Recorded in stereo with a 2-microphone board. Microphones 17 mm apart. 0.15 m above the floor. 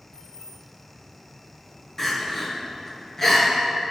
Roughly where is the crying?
Left.